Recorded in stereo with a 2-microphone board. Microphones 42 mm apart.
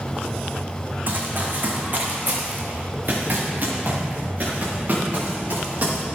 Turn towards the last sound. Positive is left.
turn(degrees=-45)  # may be behind; listen again after turning